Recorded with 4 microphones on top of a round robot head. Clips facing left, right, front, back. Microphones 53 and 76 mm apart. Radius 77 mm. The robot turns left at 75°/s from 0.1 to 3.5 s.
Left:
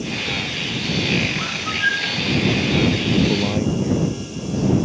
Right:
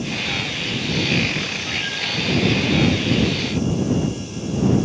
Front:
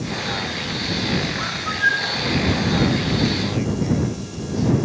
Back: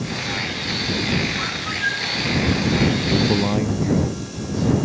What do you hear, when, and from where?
1.4 s a bird: 85° left; by 2.2 s 25° left
3.1 s a man speaking: 155° left; by 4.8 s 125° left